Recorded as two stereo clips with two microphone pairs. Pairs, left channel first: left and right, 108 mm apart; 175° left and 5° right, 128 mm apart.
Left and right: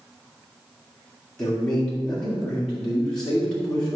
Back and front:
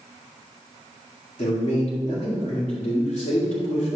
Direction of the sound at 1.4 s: 175° left.